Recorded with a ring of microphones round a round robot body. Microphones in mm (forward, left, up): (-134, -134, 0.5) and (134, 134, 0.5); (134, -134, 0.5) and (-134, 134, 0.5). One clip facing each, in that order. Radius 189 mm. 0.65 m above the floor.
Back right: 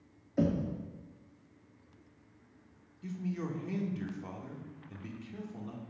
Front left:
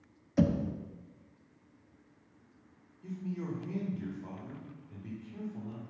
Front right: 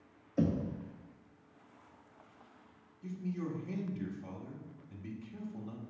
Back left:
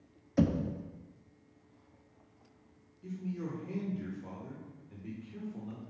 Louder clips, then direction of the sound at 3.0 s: Back right 1 dB, even; 105° right.